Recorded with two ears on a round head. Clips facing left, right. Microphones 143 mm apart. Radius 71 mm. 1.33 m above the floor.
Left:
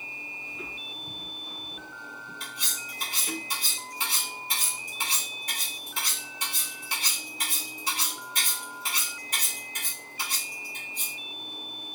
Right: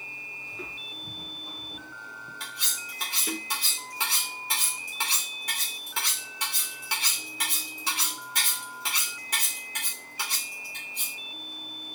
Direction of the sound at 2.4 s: 55° right (ahead or behind).